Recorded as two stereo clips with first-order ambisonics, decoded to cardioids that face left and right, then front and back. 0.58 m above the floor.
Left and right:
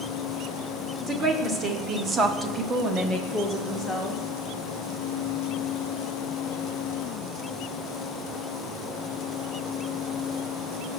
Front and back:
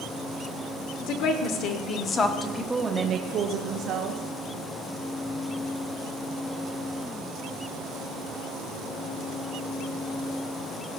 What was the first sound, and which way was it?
A woman speaking, 20° right.